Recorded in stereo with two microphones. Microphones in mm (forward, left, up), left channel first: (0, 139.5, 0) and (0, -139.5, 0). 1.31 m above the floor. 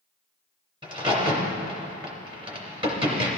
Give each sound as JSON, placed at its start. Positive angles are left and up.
{"t": 0.8, "sound": "a crack", "side_deg": -20, "distance_m": 3.0}